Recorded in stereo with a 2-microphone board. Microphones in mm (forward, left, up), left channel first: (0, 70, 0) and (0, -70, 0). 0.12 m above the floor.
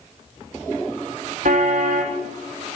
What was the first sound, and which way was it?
A car horn, 70° right (ahead or behind).